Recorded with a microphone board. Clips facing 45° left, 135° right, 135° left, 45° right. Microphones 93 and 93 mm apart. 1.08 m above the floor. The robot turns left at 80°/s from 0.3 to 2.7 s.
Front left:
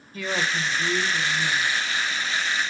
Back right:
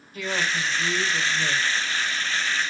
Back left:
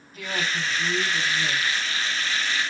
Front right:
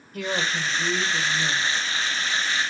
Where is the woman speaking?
10° right, 2.5 m; by 1.7 s 125° right, 2.5 m.